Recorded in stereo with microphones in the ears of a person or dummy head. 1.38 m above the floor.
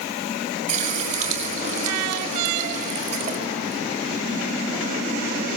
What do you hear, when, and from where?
0.7 s a running tap: 40° right (ahead or behind), 4.5 m